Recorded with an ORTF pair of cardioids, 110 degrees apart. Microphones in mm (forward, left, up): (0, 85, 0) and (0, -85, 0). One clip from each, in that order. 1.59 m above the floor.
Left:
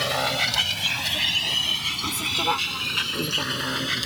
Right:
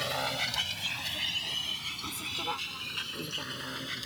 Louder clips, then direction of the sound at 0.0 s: Left 8 dB; 45° left.